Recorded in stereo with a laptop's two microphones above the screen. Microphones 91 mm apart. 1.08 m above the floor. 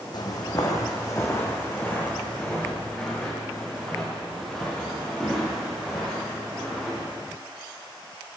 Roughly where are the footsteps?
Left.